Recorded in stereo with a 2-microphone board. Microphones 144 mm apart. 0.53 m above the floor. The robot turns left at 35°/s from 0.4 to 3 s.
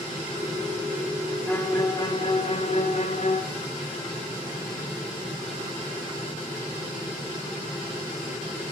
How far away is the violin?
About 0.8 m.